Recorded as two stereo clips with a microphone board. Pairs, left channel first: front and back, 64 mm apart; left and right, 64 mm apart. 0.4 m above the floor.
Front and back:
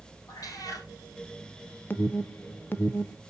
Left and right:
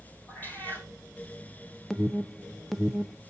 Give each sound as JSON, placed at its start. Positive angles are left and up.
{"t": 0.3, "sound": "a cat meowing", "azimuth_deg": 30, "distance_m": 3.0}
{"t": 1.9, "sound": "an alarm", "azimuth_deg": 10, "distance_m": 0.5}